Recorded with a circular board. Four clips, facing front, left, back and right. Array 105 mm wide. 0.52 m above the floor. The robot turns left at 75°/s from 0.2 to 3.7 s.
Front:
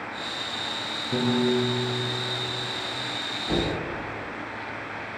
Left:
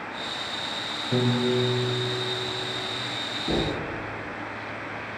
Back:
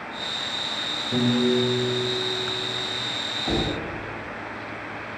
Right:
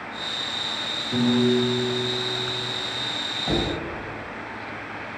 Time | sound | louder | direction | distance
1.1 | a piano | right 4 dB, back 2 dB | 100° left | 1.4 m
3.5 | knocking | right 1 dB, back 1 dB | 130° right | 2 m